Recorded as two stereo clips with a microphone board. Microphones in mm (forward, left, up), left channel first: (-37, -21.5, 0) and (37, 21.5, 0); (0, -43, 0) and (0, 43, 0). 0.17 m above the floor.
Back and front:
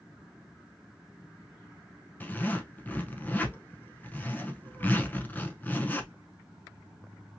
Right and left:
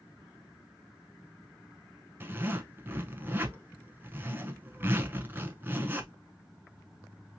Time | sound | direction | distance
2.2 | a zipper | 150° left | 0.7 m